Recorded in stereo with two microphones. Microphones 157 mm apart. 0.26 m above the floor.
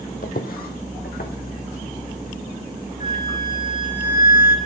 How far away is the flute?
About 3 m.